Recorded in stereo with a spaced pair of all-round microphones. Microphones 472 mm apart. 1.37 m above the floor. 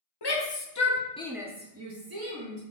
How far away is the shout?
About 0.9 m.